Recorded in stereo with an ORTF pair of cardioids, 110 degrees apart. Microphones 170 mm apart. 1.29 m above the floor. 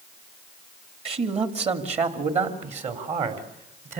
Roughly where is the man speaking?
Ahead right.